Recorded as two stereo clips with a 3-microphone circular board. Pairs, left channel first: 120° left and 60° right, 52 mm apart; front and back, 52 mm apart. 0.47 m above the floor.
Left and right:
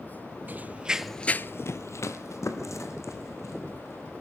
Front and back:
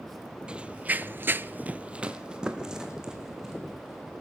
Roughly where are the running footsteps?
Right.